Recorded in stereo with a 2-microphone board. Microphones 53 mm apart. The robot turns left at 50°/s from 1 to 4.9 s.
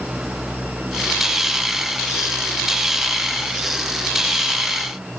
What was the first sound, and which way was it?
Only background noise.